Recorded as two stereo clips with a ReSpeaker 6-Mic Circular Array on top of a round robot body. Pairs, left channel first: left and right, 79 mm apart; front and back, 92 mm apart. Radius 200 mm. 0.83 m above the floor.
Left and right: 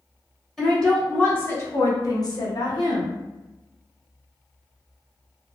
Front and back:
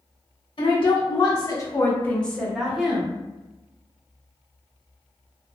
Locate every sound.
0.6 s a woman speaking: 5° left, 1.3 m; by 3.2 s 105° left, 1.4 m